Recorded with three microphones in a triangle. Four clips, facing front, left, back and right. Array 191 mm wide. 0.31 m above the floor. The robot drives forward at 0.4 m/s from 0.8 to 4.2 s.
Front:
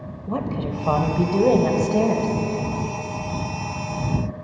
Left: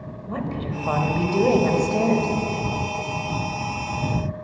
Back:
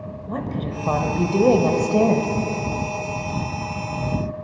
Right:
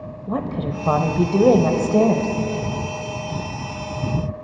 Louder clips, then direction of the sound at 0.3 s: Right 4 dB, front 2 dB; 75° right.